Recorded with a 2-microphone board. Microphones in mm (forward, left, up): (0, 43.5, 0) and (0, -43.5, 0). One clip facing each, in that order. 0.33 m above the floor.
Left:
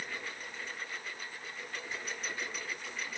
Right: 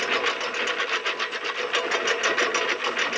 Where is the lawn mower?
85° right; by 3.2 s 75° right (ahead or behind).